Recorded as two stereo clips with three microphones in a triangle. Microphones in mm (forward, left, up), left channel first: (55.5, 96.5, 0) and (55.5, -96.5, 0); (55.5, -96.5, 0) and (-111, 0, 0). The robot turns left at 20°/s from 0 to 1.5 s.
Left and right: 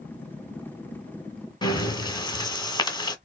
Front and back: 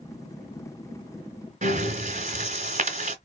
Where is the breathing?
145° left, 1.4 m.